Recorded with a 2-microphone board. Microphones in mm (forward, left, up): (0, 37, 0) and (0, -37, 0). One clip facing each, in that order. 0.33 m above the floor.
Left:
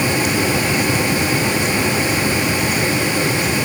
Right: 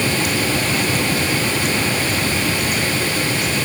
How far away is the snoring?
No snoring in this recording.